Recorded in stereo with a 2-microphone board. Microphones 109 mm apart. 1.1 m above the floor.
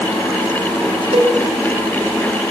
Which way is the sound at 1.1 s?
65° right (ahead or behind).